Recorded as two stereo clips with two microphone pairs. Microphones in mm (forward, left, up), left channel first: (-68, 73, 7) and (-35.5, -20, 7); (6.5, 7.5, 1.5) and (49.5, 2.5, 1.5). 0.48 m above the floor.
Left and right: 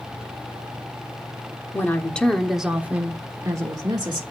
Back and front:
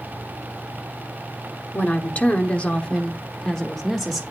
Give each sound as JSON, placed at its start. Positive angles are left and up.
{"t": 1.7, "sound": "a woman speaking", "azimuth_deg": 155, "distance_m": 1.2}